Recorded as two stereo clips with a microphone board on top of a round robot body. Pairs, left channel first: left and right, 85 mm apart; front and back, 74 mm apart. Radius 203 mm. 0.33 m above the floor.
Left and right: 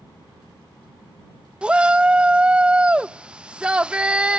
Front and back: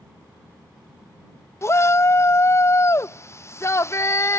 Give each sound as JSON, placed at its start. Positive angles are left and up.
{"t": 1.6, "sound": "a shout", "azimuth_deg": -20}